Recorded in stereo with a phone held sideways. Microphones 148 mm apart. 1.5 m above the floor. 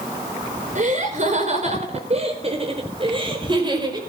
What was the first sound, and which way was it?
Laughter, 55° right (ahead or behind).